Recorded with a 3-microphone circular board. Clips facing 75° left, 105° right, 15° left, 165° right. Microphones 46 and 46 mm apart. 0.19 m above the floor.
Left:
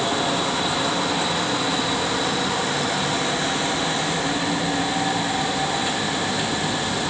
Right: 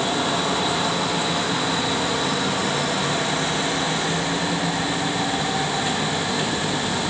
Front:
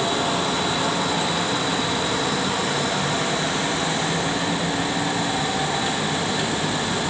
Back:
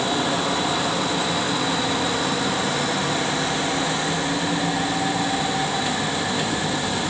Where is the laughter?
I don't hear laughter.